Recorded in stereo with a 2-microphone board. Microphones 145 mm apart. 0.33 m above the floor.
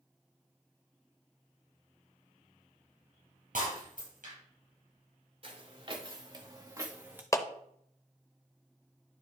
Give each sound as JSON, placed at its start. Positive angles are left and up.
{"t": 3.5, "sound": "breaking glass", "side_deg": -75, "distance_m": 5.0}
{"t": 5.4, "sound": "footsteps", "side_deg": -45, "distance_m": 2.0}
{"t": 7.3, "sound": "a clap", "side_deg": 20, "distance_m": 0.6}